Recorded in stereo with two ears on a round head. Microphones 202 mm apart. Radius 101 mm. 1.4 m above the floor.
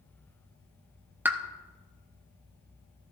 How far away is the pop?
About 0.8 m.